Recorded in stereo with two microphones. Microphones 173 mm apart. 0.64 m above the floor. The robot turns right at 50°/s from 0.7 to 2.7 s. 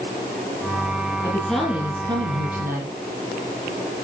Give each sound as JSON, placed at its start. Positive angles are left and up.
{"t": 1.2, "sound": "a woman speaking", "azimuth_deg": 165, "distance_m": 7.5}